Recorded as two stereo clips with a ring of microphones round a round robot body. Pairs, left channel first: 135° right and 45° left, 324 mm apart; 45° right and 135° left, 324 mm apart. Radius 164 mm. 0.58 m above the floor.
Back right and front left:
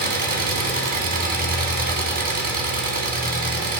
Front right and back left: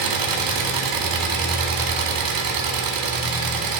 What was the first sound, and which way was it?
An engine running, 110° left.